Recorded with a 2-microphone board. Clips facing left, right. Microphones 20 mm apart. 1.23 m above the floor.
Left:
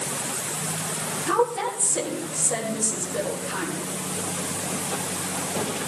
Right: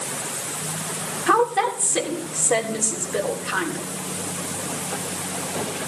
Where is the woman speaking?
70° right (ahead or behind), 3 m.